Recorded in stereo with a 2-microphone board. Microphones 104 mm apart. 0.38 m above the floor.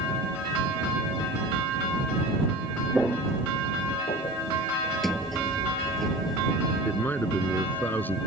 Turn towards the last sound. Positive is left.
turn(degrees=20)  # may be behind; listen again after turning